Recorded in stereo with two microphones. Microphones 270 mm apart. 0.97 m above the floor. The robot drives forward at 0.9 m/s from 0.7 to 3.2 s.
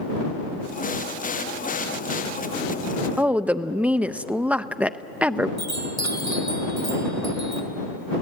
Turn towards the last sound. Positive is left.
turn(degrees=-70)  # may be behind; listen again after turning